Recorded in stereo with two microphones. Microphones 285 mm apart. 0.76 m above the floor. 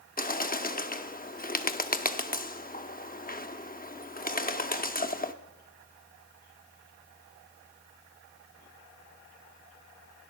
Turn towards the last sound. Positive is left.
turn(degrees=30)  # may be behind; listen again after turning